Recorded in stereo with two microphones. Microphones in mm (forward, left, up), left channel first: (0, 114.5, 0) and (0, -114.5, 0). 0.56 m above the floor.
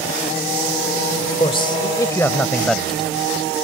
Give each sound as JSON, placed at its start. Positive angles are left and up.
{"t": 1.4, "sound": "a man speaking", "side_deg": 25}